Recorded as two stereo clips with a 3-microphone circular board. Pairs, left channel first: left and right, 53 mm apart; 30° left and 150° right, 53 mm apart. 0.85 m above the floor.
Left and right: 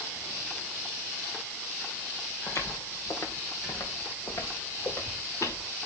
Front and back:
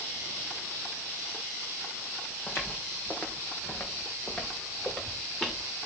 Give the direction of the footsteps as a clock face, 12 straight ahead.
9 o'clock.